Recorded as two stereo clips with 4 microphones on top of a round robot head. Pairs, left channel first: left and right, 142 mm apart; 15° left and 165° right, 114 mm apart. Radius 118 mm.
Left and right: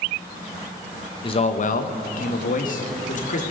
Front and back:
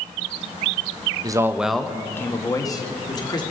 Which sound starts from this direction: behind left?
A man speaking, at 1.2 s.